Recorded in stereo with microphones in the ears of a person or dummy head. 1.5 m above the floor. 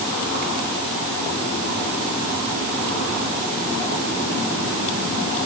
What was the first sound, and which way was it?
Only background noise.